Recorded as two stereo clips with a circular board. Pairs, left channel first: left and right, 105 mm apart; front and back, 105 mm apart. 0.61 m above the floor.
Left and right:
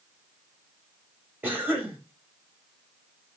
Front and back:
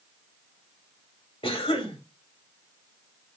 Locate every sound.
1.4 s a cough: 20° right, 1.4 m